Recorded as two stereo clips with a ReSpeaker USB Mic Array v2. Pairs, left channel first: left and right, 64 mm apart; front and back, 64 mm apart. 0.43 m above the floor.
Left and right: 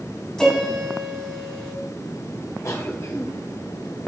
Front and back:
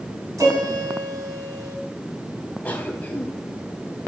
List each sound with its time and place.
0.4 s a piano: 165° left, 4 m
2.6 s a cough: 60° left, 3 m